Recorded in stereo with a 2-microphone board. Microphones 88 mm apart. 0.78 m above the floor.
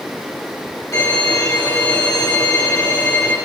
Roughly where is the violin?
Left.